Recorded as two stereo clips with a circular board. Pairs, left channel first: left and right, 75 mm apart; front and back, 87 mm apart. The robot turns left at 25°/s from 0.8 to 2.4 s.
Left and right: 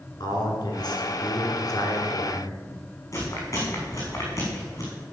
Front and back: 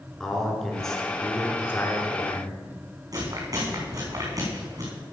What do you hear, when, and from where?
0.2 s a man speaking: 85° left, 3 m; by 2.6 s 45° left, 3 m
3.1 s chewing: 135° left, 5.5 m